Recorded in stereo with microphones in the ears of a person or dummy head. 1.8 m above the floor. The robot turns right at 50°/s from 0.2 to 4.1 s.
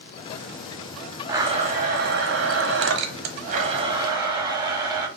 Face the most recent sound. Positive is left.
turn(degrees=-25)